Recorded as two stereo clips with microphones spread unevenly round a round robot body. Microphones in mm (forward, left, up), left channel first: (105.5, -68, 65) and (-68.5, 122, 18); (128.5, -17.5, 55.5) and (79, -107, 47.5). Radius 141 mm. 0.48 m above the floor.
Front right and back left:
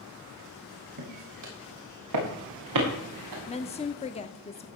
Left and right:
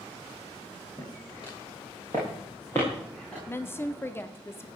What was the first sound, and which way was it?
Footsteps, 130° left.